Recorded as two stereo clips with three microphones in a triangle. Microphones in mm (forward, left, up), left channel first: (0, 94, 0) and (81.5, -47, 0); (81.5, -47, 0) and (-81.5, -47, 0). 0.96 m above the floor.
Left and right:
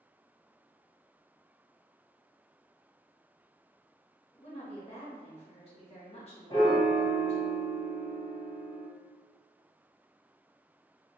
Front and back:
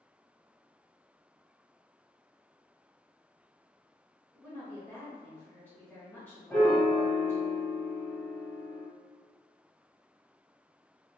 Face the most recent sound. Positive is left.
turn(degrees=70)